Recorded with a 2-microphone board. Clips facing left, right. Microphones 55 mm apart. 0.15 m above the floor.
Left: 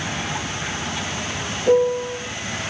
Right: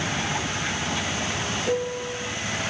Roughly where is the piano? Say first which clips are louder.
Left 12 dB; left.